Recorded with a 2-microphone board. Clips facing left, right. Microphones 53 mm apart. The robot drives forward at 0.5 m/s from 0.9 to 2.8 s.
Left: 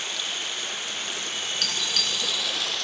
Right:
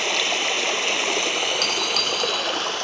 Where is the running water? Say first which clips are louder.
Right 9 dB; 85° right, 0.8 m; by 2.9 s 40° right (ahead or behind), 1.3 m.